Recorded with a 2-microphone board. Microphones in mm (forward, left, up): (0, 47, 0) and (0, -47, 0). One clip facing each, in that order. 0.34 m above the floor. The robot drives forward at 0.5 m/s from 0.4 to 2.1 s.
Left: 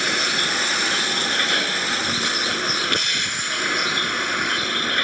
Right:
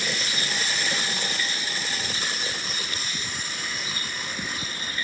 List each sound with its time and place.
0.0 s a vehicle: 70° left (ahead or behind); by 5.0 s 80° left